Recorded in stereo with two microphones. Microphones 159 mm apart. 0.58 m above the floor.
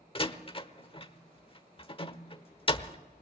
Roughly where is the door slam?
Left.